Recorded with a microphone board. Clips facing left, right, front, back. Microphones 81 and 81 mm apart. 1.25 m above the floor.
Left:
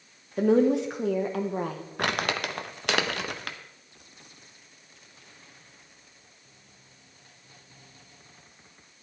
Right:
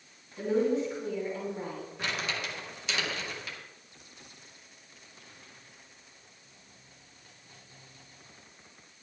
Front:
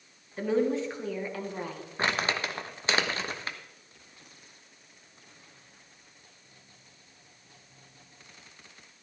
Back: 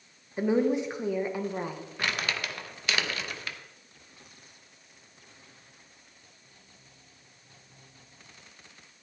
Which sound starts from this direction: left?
A woman speaking, at 0.4 s.